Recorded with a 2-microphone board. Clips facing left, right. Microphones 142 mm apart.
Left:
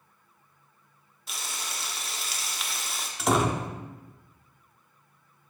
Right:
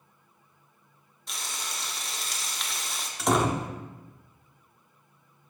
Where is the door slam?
Centre (ahead or behind), 0.7 m.